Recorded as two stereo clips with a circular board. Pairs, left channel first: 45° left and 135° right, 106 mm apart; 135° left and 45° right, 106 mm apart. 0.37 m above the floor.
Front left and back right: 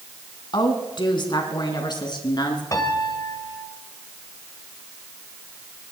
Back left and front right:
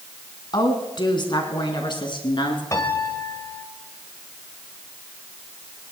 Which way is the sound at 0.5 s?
90° left.